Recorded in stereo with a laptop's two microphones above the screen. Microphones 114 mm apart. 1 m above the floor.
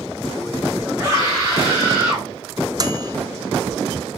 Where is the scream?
25° right (ahead or behind), 5 m; by 2.3 s 15° right (ahead or behind), 5 m.